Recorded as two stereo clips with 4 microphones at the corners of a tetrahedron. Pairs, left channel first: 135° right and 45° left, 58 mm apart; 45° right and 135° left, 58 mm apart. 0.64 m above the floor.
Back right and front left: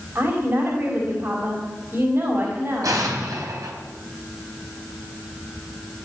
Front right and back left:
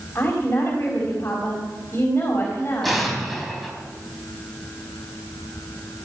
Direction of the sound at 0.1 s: 5° left.